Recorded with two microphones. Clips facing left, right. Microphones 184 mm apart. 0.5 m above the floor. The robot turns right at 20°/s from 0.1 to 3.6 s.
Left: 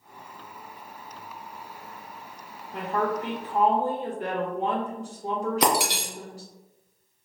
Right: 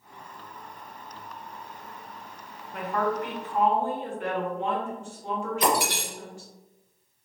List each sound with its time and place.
2.7 s a woman speaking: 25° left (ahead or behind), 1.4 m; by 6.5 s 35° left (ahead or behind), 1.4 m
5.6 s breaking glass: 80° left, 1.0 m